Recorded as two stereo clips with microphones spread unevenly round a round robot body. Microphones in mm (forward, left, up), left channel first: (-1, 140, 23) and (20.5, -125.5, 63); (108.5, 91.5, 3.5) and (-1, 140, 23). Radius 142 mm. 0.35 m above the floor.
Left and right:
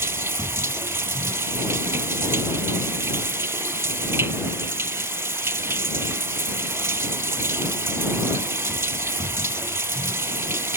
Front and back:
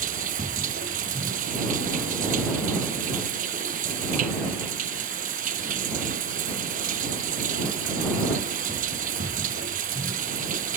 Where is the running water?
165° right.